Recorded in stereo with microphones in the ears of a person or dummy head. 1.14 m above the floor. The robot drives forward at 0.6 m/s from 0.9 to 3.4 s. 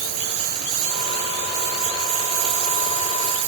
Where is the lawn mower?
85° right; by 3.5 s 75° right (ahead or behind).